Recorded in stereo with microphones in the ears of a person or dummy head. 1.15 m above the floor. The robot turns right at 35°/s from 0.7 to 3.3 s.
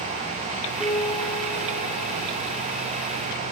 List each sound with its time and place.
0.8 s a piano: 5° right, 4 m; by 2.3 s 50° left, 4 m